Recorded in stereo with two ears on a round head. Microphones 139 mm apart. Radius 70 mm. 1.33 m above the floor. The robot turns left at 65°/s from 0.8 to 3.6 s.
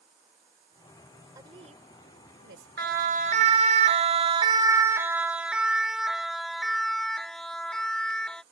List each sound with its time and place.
1.4 s a woman speaking: 20° right (ahead or behind); by 2.8 s 70° right (ahead or behind)
2.8 s a siren: 65° right (ahead or behind); by 8.4 s 5° left (ahead or behind)